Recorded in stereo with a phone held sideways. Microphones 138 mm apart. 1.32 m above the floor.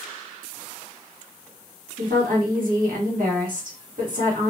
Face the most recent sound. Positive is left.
turn(degrees=-75)  # may be behind; listen again after turning